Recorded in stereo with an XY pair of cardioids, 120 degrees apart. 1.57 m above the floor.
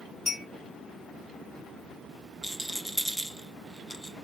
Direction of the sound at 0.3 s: 50° left.